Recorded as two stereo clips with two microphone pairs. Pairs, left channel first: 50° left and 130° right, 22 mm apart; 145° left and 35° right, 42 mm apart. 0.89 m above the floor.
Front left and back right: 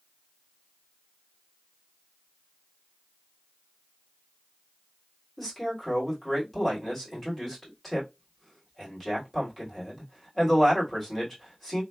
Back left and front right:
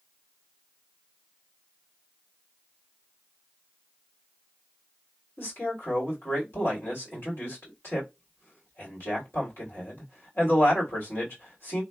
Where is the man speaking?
130° left, 2.5 m.